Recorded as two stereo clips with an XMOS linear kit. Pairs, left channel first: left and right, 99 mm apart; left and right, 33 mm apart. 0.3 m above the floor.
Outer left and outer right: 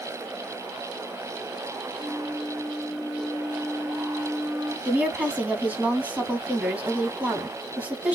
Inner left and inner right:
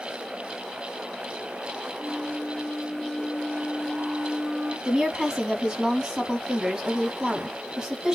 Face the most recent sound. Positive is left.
turn(degrees=-15)  # may be behind; listen again after turning